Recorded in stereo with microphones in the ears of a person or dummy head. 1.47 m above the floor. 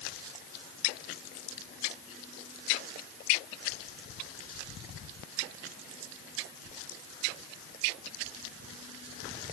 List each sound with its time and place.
0.0 s an insect: 60° right (ahead or behind)